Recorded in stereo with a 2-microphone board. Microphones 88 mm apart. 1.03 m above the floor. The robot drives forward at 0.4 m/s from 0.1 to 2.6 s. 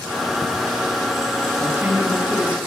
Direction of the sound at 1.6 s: 25° right (ahead or behind).